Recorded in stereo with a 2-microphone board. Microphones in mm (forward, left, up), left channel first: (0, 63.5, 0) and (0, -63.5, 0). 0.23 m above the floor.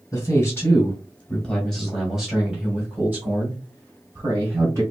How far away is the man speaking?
About 1.6 m.